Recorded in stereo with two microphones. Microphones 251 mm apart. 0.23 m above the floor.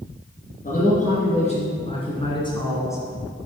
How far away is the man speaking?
About 3 m.